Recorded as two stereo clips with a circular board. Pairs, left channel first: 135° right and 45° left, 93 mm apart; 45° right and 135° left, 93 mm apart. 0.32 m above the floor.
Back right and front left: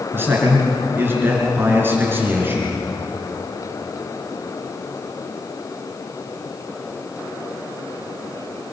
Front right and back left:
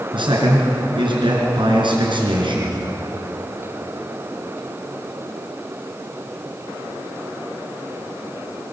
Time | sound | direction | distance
0.1 | a man speaking | 110° left | 4.5 m